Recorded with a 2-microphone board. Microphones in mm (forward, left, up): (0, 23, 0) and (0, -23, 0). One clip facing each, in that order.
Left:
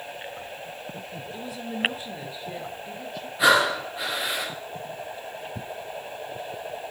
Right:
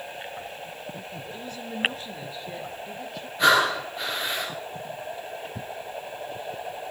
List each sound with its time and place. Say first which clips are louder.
1.3 s a woman speaking: left 2 dB; 10° left (ahead or behind), 2.0 m; by 3.3 s centre (ahead or behind), 3 m
3.4 s breathing: even; 5° left (ahead or behind), 9 m